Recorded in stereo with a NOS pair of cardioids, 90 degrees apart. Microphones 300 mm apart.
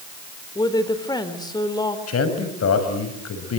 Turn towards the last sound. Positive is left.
turn(degrees=55)